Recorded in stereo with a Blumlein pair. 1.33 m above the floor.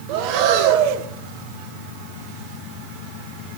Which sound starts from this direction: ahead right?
Breathing, at 0.1 s.